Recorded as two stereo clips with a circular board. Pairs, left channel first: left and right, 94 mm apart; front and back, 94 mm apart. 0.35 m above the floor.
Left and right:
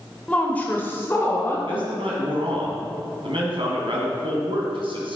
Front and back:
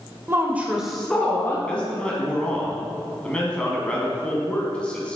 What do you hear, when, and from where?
0.3 s a woman speaking: 150° left, 1.3 m; by 1.6 s 45° left, 1.4 m
1.7 s a man speaking: 80° right, 2 m